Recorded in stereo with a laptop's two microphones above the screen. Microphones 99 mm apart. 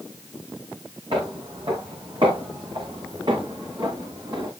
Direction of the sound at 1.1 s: 65° right (ahead or behind).